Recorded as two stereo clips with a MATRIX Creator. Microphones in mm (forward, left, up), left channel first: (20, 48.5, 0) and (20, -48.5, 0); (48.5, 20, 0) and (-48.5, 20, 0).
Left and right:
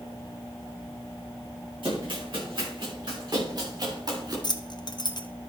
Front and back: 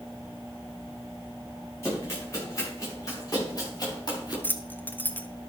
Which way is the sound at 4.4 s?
65° left.